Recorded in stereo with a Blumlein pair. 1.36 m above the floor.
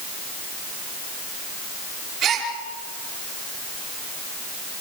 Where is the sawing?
I don't hear sawing.